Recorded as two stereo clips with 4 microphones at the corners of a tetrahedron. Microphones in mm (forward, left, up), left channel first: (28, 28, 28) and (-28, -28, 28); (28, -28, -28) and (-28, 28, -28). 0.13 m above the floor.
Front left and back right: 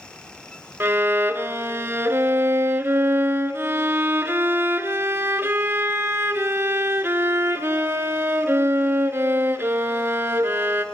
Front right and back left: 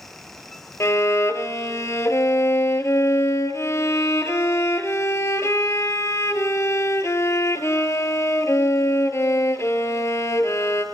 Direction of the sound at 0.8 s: 85° right.